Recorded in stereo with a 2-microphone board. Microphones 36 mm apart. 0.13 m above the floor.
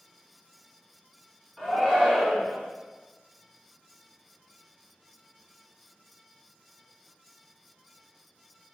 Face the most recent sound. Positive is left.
turn(degrees=5)  # may be behind; listen again after turning